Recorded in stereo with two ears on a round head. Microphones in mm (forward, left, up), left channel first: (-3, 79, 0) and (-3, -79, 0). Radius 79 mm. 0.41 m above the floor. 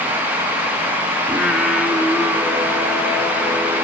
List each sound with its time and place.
1.3 s singing: 5° right (ahead or behind), 2.5 m